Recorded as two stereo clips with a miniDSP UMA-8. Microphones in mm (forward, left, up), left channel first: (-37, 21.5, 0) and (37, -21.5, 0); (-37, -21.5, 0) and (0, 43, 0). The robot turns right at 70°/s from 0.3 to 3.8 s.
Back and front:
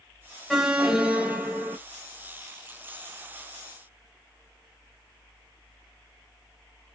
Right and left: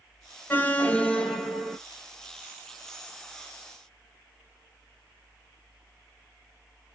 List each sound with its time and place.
0.5 s an alarm: 115° right, 0.6 m; by 1.8 s 25° right, 0.6 m